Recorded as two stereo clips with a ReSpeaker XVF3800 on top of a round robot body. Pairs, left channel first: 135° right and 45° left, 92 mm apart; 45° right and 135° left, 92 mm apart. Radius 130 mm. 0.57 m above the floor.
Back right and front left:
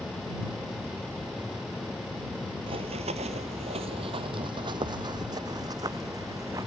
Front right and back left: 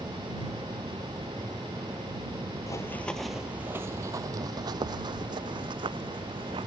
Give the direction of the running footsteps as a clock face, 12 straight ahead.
12 o'clock.